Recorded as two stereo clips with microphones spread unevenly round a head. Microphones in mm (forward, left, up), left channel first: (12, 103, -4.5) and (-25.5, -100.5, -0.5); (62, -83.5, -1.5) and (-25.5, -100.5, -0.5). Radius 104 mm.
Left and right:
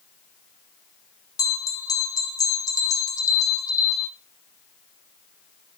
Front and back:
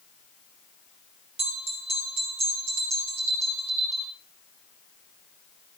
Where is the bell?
155° left, 2.0 m.